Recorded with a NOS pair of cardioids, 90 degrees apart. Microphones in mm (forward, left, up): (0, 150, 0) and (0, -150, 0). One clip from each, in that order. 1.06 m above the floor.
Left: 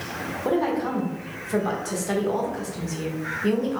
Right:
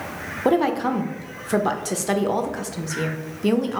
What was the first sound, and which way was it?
A woman speaking, 30° right.